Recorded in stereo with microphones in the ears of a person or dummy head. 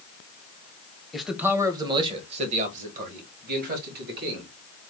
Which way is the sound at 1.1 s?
Centre (ahead or behind).